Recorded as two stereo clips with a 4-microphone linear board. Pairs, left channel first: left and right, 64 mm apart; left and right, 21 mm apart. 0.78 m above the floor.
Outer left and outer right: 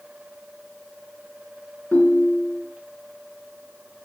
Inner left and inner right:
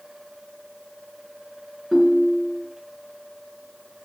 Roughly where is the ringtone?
Left.